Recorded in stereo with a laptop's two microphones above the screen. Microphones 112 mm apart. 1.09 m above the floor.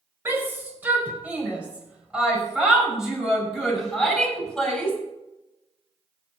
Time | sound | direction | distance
0.2 | a shout | 20° right (ahead or behind) | 4.5 m